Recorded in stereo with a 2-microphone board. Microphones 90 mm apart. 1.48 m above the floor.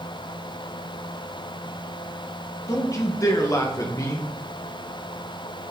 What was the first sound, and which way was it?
A man speaking, 35° left (ahead or behind).